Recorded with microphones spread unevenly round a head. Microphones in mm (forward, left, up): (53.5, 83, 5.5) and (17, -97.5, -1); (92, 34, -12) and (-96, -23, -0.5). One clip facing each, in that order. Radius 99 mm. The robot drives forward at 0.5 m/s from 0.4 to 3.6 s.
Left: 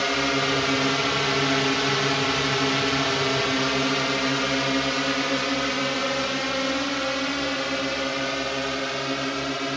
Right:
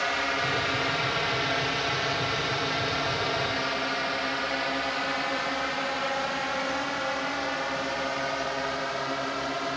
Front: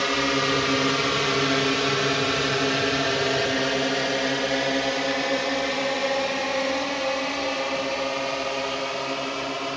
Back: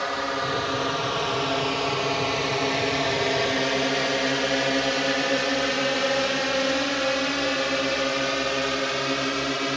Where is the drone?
55° left; by 9.8 s 135° left.